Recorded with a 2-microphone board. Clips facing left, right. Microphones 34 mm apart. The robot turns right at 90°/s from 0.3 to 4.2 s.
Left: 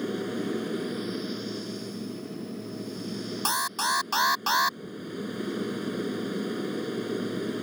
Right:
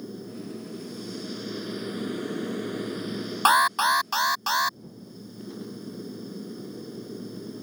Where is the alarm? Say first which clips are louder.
Right 9 dB; 65° right; by 4.8 s 5° left.